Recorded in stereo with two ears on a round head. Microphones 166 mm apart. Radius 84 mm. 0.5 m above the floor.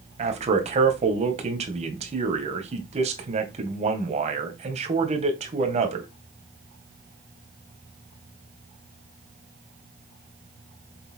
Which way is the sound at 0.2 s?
40° right (ahead or behind).